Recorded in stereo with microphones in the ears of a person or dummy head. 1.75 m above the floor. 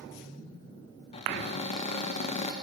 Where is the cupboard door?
30° left (ahead or behind), 2 m.